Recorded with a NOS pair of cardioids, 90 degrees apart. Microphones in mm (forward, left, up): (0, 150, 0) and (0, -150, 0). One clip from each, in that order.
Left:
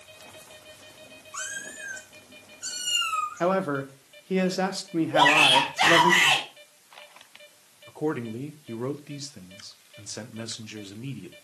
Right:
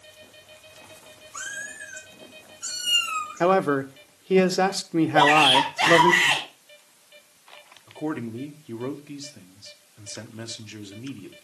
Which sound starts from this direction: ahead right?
A man speaking, at 3.4 s.